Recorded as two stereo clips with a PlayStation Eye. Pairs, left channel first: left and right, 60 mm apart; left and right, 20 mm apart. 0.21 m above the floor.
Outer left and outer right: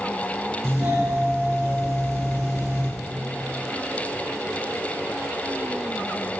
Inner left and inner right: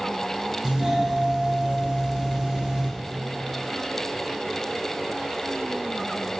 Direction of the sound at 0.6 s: 40° right (ahead or behind).